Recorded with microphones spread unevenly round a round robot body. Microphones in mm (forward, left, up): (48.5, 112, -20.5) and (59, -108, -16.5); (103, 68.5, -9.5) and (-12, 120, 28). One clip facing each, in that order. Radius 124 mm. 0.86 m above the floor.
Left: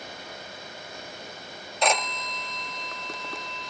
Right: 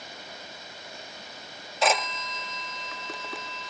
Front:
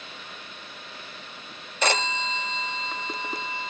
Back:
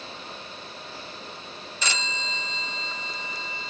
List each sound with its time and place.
1.8 s a phone ringing: straight ahead